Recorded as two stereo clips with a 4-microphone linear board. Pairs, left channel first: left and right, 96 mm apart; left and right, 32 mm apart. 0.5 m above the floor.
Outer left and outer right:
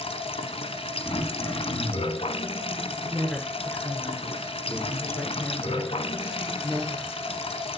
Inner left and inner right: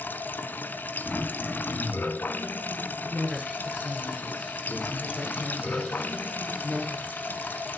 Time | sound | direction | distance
0.0 | running water | 80° left | 1.1 m
1.1 | throat clearing | 40° left (ahead or behind) | 5.5 m
3.1 | a woman speaking | 15° left (ahead or behind) | 6.5 m